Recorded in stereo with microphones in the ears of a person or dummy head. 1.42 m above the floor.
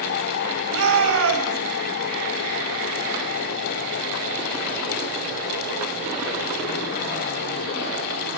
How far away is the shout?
About 8 m.